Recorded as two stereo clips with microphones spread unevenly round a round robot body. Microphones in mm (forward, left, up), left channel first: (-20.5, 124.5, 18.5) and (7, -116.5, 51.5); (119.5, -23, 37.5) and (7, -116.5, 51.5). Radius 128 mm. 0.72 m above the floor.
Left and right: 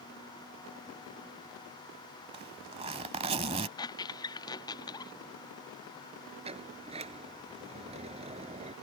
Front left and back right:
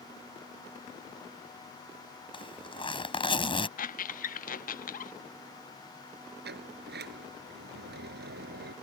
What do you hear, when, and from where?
2.3 s a zipper: 15° right
3.8 s a squeak: 25° left
6.4 s a sliding door: 150° right